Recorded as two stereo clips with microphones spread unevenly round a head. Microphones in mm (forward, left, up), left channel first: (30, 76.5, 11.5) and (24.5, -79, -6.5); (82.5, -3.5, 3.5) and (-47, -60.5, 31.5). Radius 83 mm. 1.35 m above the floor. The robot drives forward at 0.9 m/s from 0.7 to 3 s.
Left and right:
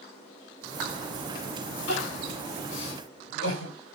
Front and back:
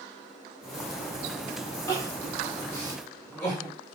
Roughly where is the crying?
Left.